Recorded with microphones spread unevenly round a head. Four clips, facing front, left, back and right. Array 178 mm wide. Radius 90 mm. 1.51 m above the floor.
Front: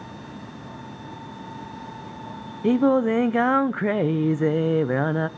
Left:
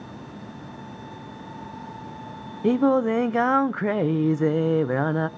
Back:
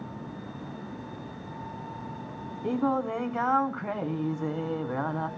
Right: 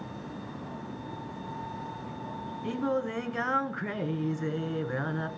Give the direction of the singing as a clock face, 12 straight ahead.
11 o'clock.